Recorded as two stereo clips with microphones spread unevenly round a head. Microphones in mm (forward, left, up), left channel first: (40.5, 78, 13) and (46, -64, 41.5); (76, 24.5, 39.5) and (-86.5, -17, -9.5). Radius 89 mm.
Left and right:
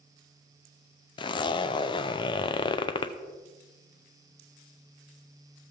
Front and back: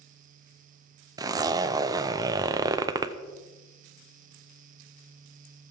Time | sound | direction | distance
1.2 | a zipper | 140° left | 0.6 m